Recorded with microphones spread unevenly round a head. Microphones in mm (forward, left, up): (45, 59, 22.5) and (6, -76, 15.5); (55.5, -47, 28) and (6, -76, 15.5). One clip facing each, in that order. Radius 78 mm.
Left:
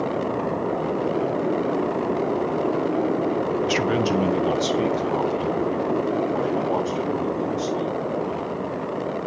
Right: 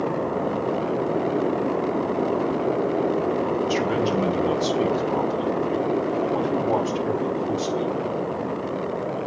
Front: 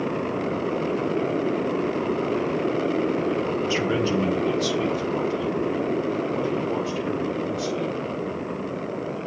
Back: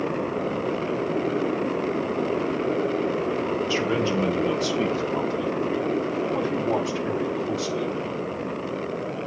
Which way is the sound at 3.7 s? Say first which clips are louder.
Left 1 dB, front 1 dB; 105° left.